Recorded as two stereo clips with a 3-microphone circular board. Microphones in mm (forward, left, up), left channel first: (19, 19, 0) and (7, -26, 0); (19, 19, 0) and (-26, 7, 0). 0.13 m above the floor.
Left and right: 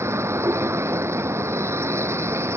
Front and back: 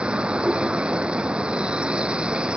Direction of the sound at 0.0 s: 95° right.